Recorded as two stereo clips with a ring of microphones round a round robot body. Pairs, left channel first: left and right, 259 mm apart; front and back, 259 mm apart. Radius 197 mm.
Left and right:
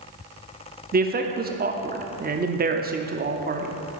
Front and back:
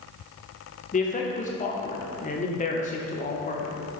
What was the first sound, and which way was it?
A man speaking, 50° right.